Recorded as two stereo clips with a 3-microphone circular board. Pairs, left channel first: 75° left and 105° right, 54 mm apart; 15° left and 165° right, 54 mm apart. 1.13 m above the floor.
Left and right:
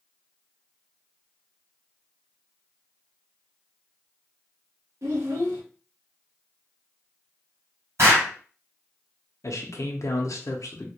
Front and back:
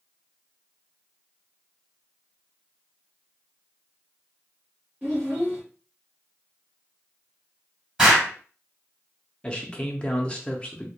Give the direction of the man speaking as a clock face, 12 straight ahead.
9 o'clock.